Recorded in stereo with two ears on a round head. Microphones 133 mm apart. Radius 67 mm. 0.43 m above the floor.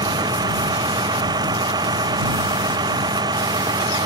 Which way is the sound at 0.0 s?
25° right (ahead or behind).